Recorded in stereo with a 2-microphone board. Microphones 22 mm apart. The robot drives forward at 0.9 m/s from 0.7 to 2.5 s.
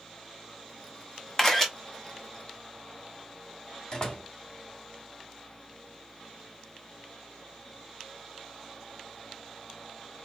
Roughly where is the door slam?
Left.